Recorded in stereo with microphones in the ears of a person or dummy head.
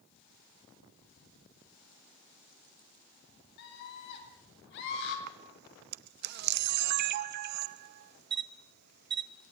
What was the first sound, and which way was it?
A scream, 55° left (ahead or behind).